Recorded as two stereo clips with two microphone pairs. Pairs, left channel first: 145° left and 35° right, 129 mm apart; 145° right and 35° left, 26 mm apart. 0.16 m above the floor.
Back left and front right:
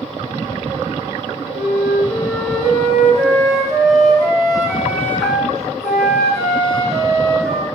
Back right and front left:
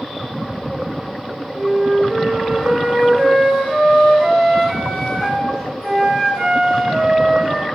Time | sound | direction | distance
1.5 | a flute | 45° left | 1.6 m